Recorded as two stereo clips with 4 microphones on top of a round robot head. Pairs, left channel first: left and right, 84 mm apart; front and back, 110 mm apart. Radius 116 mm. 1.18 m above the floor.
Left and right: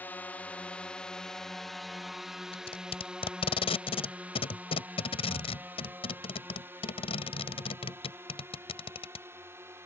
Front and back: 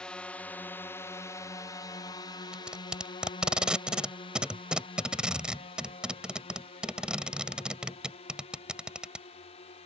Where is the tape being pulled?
100° left.